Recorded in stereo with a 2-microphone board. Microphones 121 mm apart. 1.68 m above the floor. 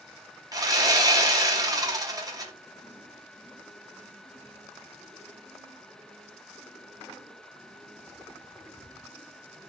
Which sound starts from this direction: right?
Sawing, at 0.5 s.